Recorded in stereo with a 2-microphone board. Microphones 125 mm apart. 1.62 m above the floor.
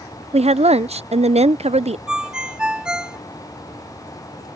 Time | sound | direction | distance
0.3 | a woman speaking | 55° right (ahead or behind) | ?
2.1 | a ringtone | 5° right (ahead or behind) | ?